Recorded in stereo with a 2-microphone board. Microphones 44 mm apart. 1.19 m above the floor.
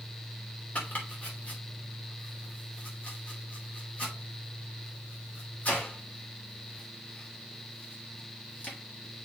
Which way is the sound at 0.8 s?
30° left (ahead or behind).